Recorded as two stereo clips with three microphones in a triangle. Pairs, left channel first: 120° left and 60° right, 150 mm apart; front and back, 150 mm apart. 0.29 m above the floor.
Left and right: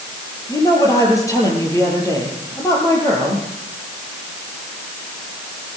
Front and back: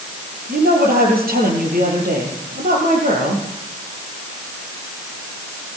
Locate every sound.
0.5 s a woman speaking: 170° right, 8.5 m